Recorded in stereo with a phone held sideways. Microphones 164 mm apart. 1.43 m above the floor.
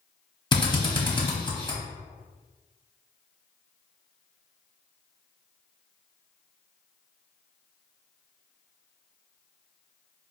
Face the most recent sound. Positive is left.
turn(degrees=25)  # may be behind; listen again after turning